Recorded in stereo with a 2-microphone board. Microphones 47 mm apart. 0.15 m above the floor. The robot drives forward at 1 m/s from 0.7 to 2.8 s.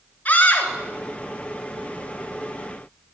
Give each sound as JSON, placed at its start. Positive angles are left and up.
{"t": 0.2, "sound": "a scream", "side_deg": 35, "distance_m": 2.5}